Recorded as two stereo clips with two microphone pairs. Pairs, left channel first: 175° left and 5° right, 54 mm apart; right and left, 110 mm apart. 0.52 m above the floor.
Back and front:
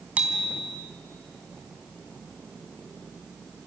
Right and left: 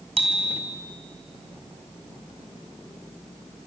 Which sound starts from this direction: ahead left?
A bicycle bell, at 0.2 s.